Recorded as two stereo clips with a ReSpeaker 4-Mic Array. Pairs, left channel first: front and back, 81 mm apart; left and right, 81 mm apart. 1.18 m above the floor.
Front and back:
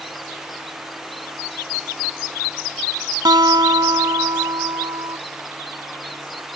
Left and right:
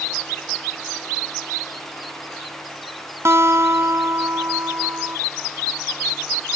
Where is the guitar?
145° right.